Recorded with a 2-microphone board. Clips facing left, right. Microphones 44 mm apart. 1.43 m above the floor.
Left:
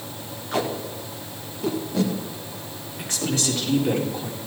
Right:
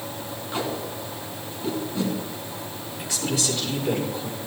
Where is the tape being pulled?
70° left (ahead or behind), 2 m.